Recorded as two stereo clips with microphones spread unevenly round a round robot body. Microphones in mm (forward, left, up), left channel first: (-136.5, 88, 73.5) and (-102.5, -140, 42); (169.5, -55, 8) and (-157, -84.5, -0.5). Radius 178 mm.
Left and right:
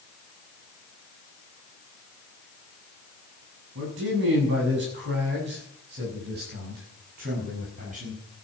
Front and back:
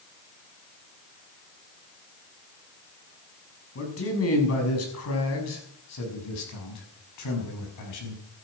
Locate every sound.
3.8 s a man speaking: 40° right, 6.5 m; by 8.2 s 20° right, 6 m